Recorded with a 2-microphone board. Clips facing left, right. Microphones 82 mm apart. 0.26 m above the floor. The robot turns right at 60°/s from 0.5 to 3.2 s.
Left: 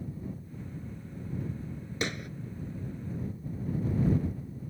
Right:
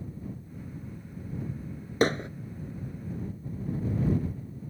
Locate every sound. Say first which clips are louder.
2.0 s hammering: right 10 dB; 45° right (ahead or behind); by 2.3 s 30° right (ahead or behind)